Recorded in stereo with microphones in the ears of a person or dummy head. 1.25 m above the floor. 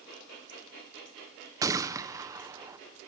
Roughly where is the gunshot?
Centre.